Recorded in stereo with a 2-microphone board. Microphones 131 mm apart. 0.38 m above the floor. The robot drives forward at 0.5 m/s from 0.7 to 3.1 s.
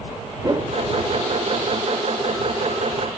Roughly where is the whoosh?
Right.